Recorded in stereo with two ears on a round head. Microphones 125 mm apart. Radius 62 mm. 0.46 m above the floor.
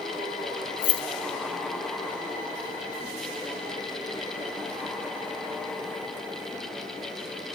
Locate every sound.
0.8 s keys jangling: 60° left (ahead or behind), 1.1 m